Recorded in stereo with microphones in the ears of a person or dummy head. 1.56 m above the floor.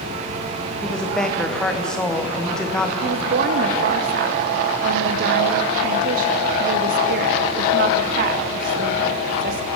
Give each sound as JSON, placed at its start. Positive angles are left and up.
{"t": 0.8, "sound": "a woman speaking", "side_deg": 5, "distance_m": 1.0}
{"t": 3.0, "sound": "a woman speaking", "side_deg": -55, "distance_m": 0.7}